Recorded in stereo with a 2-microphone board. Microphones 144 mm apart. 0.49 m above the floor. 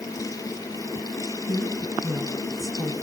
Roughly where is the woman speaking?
Left.